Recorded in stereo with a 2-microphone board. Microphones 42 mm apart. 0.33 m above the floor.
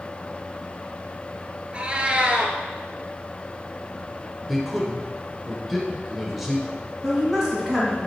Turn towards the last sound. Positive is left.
turn(degrees=-10)  # may be behind; listen again after turning